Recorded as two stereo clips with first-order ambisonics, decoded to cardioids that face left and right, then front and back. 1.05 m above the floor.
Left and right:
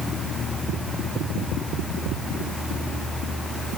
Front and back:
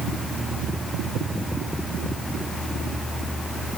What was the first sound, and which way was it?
Only background noise.